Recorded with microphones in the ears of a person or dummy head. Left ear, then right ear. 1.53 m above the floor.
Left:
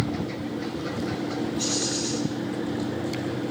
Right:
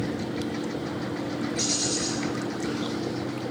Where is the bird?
60° right (ahead or behind), 4.5 m.